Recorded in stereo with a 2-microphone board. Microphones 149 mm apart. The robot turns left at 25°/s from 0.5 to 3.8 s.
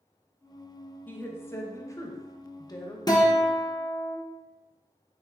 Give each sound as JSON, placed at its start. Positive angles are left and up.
{"t": 1.1, "sound": "a woman speaking", "side_deg": 10, "distance_m": 0.6}
{"t": 3.1, "sound": "a guitar", "side_deg": 25, "distance_m": 0.9}